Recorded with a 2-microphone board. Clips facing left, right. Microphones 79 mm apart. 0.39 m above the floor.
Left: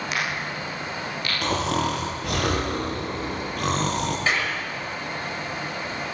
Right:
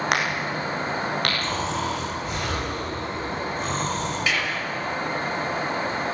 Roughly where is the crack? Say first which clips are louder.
Right 4 dB; right.